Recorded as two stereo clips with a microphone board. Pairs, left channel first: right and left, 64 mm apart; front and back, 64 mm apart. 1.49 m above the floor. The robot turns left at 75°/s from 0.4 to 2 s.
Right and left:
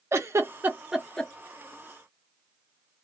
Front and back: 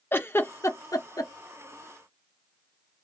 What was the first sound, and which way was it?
A giggle, 50° left.